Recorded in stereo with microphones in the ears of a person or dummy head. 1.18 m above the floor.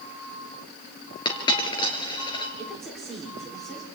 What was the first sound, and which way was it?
A dropped coin, 25° left (ahead or behind).